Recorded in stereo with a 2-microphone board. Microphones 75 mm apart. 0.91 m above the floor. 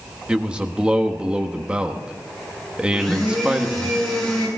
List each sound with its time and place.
0.3 s a man speaking: 15° right (ahead or behind), 1.2 m
2.9 s a blender: 5° left (ahead or behind), 6.5 m